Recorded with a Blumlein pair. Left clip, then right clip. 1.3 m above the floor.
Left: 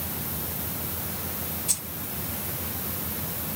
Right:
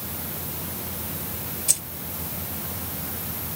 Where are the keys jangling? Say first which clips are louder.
Right 5 dB; 25° right, 1.4 m.